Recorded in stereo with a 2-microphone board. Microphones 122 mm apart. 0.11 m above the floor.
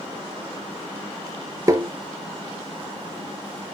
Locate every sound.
1.7 s tapping: 25° right (ahead or behind), 0.6 m